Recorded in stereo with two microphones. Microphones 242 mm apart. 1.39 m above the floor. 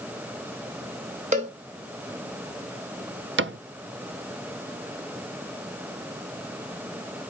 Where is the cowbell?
30° right (ahead or behind), 1.4 m.